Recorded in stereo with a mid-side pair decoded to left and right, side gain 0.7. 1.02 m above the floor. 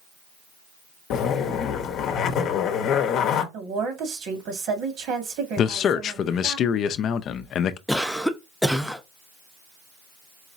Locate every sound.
1.1 s a zipper: 55° left, 0.8 m
3.5 s a woman speaking: 55° right, 1.6 m
5.6 s a man speaking: 45° left, 0.5 m
7.9 s a cough: straight ahead, 0.7 m